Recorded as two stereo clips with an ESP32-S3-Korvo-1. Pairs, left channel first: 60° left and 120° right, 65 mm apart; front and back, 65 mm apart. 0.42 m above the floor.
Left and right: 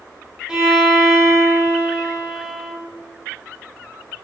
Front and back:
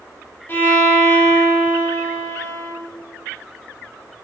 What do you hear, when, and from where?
0.5 s a violin: 50° right, 0.7 m